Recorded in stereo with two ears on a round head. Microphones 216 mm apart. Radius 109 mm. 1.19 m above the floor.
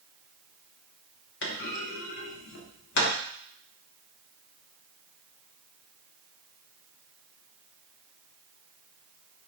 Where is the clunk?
50° left (ahead or behind), 0.9 m.